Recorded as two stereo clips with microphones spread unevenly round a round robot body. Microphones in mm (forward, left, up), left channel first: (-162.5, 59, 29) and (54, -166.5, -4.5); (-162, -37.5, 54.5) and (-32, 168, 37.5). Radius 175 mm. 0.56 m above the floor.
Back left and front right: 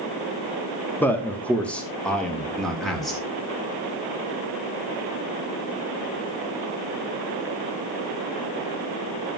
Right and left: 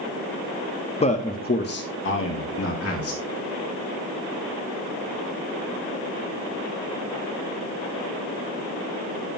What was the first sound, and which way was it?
A man speaking, 135° right.